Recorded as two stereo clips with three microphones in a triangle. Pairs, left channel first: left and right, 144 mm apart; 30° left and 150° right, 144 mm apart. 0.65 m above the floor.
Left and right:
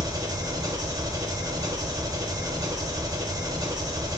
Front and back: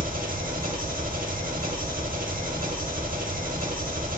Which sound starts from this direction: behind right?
An engine running, at 0.0 s.